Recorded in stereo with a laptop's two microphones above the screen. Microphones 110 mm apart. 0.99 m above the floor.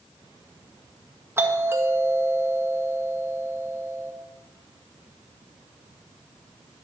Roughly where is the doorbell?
Right.